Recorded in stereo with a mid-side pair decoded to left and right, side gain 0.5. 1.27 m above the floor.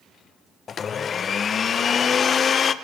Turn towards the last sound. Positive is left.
turn(degrees=45)